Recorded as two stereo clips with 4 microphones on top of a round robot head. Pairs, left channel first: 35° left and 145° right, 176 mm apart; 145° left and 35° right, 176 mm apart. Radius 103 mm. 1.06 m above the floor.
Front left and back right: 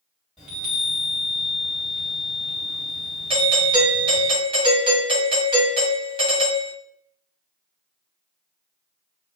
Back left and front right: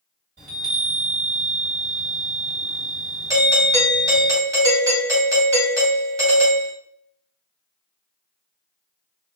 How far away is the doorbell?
About 1.5 m.